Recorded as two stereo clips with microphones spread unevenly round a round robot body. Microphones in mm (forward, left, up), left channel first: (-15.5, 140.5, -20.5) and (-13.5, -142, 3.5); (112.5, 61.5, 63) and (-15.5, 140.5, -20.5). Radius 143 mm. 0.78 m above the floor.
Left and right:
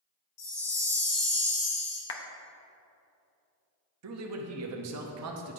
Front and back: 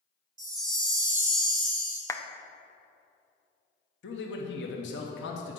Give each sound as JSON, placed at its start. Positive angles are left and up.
{"t": 0.4, "sound": "a chime", "azimuth_deg": 110, "distance_m": 2.5}
{"t": 2.1, "sound": "a clap", "azimuth_deg": 55, "distance_m": 0.6}
{"t": 4.0, "sound": "a man speaking", "azimuth_deg": -60, "distance_m": 0.9}